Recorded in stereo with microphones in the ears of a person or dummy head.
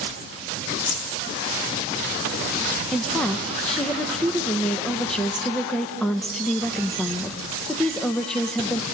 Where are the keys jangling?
70° left (ahead or behind), 3 m.